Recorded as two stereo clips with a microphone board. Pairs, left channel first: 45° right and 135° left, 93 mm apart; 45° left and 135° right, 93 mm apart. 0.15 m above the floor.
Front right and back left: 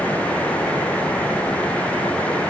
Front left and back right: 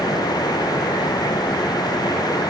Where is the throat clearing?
I don't hear throat clearing.